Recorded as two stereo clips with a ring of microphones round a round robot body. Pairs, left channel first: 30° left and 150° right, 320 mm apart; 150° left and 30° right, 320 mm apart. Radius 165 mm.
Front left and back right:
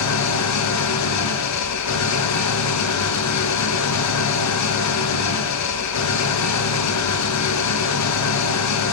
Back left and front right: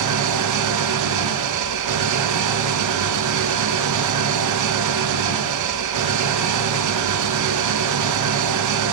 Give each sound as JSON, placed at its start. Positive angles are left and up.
{"t": 0.0, "sound": "an engine running", "azimuth_deg": -5, "distance_m": 0.8}